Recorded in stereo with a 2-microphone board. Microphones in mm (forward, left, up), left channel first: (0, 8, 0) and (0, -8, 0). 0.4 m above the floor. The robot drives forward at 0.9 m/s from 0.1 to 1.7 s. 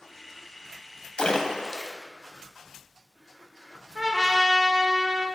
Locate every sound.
1.2 s a splash: 70° left (ahead or behind), 0.6 m; by 1.9 s 40° left (ahead or behind), 0.8 m
4.0 s a trumpet: 50° right (ahead or behind), 0.9 m